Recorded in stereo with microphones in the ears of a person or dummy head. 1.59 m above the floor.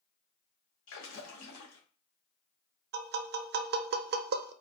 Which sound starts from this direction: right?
Tapping, at 2.9 s.